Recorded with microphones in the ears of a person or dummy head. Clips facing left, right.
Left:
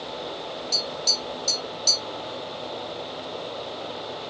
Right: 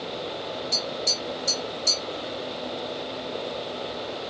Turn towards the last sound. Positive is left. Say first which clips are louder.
# right 1 dB
turn(degrees=-15)  # may be behind; listen again after turning